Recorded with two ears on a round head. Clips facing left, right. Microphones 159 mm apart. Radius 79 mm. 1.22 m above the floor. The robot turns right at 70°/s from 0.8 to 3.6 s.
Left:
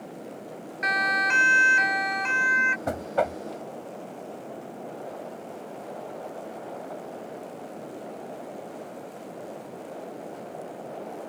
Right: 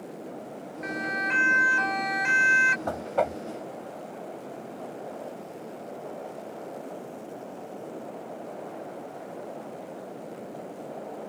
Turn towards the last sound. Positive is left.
turn(degrees=-155)